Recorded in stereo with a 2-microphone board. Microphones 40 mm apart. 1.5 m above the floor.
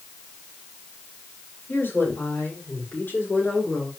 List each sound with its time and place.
1.7 s a woman speaking: 55° left (ahead or behind), 4.5 m; by 3.9 s 40° left (ahead or behind), 5.5 m